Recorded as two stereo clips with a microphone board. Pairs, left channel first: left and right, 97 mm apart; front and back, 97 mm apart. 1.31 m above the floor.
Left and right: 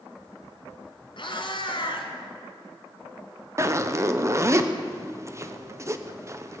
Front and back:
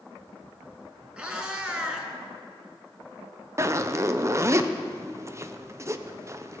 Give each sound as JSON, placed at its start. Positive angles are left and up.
{"t": 1.2, "sound": "a cat meowing", "azimuth_deg": 100, "distance_m": 2.0}
{"t": 3.6, "sound": "a zipper", "azimuth_deg": -135, "distance_m": 0.7}